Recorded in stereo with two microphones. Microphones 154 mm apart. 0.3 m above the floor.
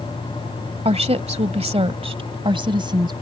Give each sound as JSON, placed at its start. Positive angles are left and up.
{"t": 0.8, "sound": "a woman speaking", "side_deg": -45}